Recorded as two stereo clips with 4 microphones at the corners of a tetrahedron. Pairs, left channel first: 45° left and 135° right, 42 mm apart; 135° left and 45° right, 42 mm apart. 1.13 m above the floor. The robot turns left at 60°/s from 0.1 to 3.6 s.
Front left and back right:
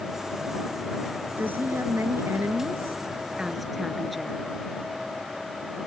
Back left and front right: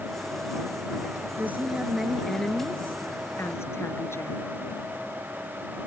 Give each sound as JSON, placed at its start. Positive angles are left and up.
{"t": 1.4, "sound": "a woman speaking", "azimuth_deg": -85}